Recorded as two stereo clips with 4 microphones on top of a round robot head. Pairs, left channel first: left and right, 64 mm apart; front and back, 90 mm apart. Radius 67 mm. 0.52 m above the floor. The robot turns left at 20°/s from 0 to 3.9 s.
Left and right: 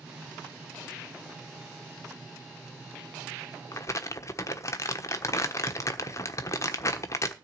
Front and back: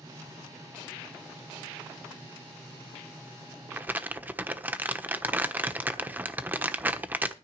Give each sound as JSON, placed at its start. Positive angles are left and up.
{"t": 3.7, "sound": "crumpling", "azimuth_deg": 120, "distance_m": 1.2}